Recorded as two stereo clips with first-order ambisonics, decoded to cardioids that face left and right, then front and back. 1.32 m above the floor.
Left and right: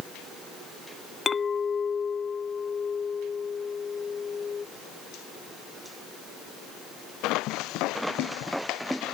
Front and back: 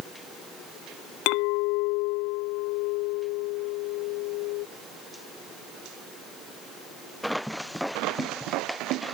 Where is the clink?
20° left.